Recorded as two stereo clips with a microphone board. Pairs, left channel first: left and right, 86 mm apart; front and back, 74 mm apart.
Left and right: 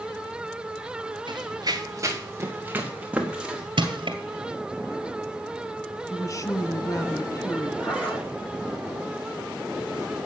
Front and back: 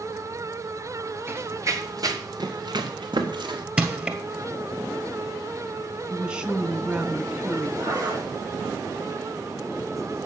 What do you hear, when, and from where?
1.3 s running footsteps: 120° right, 1.8 m; by 3.6 s 175° right, 3 m
3.8 s crushing: 105° right, 1.9 m
6.1 s a woman speaking: 110° left, 1.3 m
7.8 s a zipper: 160° left, 5.5 m